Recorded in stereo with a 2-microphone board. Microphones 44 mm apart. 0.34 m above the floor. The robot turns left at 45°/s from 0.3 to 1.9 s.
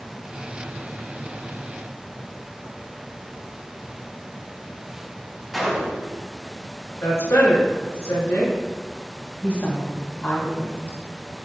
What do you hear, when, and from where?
5.5 s a gunshot: 5° right (ahead or behind), 2 m
7.0 s a woman speaking: 75° left (ahead or behind), 4.5 m
9.4 s a woman speaking: 40° left (ahead or behind), 3 m